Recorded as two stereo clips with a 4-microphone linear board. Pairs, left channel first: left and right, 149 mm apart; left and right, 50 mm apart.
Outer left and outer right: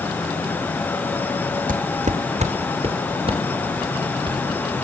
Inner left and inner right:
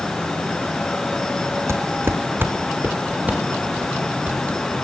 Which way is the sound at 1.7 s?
60° right (ahead or behind).